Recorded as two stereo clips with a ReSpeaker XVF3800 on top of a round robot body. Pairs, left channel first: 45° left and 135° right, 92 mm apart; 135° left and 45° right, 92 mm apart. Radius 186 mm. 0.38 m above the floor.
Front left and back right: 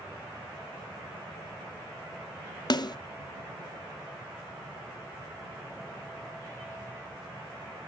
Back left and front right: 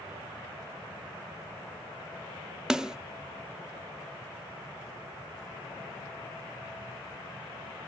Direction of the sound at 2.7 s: 35° left.